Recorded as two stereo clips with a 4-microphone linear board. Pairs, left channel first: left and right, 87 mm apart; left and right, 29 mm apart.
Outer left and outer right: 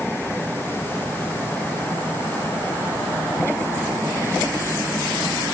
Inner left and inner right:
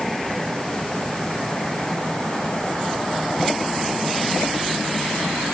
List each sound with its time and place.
Only background noise.